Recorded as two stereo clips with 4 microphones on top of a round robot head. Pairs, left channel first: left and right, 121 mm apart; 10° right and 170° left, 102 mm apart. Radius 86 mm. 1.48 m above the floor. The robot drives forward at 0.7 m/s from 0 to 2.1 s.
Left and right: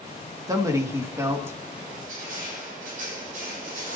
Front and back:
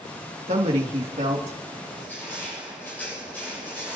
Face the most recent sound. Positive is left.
turn(degrees=-85)